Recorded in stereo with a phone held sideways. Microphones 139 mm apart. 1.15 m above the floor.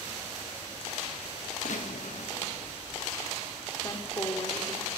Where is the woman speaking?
30° left (ahead or behind), 2.5 m.